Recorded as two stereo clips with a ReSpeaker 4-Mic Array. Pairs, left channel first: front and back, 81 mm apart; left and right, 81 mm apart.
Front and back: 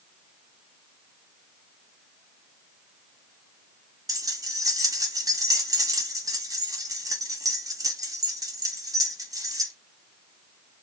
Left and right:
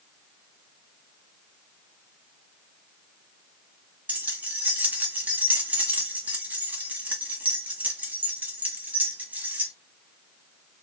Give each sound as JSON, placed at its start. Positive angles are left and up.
{"t": 4.1, "sound": "keys jangling", "azimuth_deg": -155, "distance_m": 1.0}